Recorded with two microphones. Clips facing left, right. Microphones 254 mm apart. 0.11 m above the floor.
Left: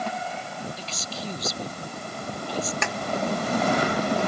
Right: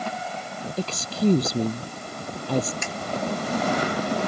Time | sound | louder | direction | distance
0.8 | a woman speaking | right 11 dB | 55° right (ahead or behind) | ?
2.8 | a snare drum | left 3 dB | 65° left (ahead or behind) | ?